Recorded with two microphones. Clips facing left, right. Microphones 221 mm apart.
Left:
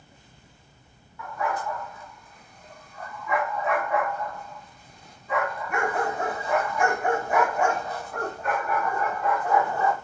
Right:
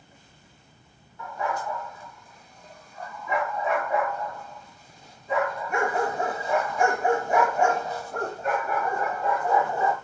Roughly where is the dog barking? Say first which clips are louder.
Left 1 dB; right.